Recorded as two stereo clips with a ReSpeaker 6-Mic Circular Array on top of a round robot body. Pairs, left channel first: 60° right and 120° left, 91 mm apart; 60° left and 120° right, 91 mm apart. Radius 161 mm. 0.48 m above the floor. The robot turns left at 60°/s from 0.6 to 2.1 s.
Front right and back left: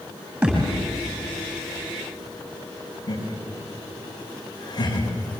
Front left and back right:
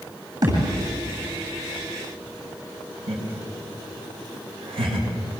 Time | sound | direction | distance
0.4 | a thud | 160° right | 8 m
3.1 | laughter | 100° right | 5.5 m